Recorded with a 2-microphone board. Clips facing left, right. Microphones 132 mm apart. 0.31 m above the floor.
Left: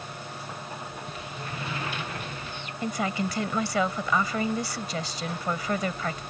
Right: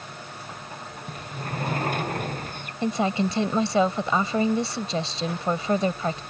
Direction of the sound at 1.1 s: 45° right (ahead or behind).